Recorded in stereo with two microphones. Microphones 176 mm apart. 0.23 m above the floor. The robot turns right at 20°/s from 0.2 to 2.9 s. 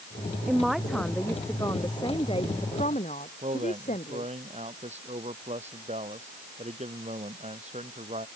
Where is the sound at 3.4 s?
40° right (ahead or behind).